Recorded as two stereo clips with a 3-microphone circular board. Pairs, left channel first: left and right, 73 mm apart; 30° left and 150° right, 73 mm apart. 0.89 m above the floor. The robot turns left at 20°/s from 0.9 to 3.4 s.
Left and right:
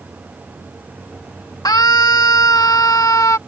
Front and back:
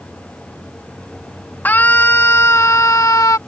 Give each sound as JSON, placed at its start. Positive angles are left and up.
{"t": 1.6, "sound": "a scream", "azimuth_deg": 90}